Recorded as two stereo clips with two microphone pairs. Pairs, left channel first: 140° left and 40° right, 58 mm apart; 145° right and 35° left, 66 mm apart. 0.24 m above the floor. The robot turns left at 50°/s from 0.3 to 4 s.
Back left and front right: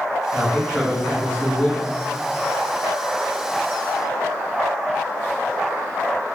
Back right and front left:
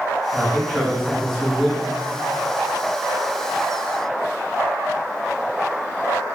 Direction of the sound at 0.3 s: 170° right.